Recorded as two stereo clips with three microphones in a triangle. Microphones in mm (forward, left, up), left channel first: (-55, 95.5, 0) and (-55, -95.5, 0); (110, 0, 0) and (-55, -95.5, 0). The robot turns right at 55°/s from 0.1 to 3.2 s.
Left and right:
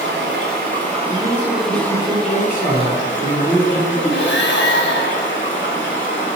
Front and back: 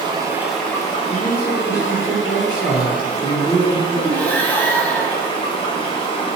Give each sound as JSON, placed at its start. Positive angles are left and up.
{"t": 0.0, "sound": "running water", "azimuth_deg": -85, "distance_m": 0.9}
{"t": 1.1, "sound": "a man speaking", "azimuth_deg": 125, "distance_m": 0.8}
{"t": 4.1, "sound": "breathing", "azimuth_deg": 110, "distance_m": 0.5}